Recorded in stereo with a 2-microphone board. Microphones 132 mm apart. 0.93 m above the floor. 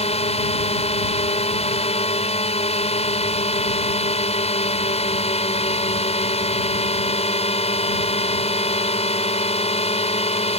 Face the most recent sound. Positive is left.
turn(degrees=60)  # may be behind; listen again after turning